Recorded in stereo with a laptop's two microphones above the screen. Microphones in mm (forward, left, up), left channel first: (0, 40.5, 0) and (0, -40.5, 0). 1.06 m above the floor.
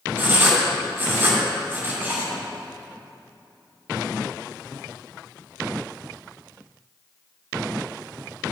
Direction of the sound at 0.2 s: 30° right (ahead or behind).